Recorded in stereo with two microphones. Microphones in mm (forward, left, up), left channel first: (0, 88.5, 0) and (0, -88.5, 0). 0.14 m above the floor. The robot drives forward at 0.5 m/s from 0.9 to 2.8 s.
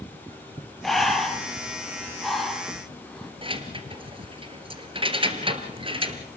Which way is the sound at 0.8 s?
Centre (ahead or behind).